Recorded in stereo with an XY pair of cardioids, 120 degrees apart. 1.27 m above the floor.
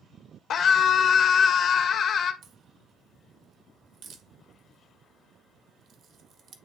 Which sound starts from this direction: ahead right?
A crack, at 2.4 s.